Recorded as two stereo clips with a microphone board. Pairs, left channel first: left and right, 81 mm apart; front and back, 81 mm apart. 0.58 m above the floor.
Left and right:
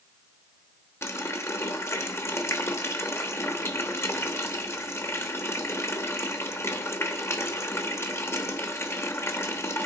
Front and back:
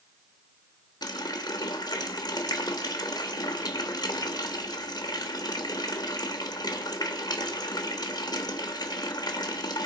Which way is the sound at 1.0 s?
30° left.